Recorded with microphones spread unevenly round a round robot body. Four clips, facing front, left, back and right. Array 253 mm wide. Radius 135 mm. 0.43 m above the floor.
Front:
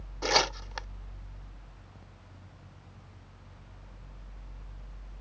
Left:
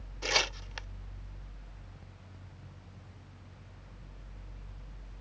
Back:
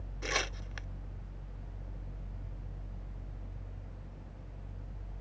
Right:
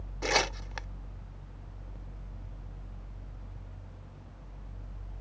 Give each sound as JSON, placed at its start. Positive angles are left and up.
{"t": 0.2, "sound": "tearing paper", "azimuth_deg": -40}